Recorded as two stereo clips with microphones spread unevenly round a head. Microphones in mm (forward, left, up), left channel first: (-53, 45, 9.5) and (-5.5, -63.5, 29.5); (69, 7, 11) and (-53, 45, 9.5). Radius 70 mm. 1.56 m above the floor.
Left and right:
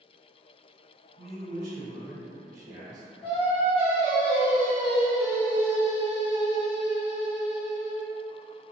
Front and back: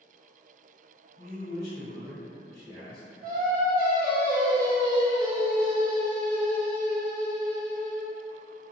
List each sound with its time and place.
1.2 s a man speaking: 30° right, 1.4 m
3.2 s singing: 150° left, 0.8 m